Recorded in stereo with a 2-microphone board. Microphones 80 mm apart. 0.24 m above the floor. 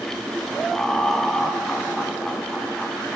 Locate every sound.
0.7 s laughter: 10° left (ahead or behind), 1.8 m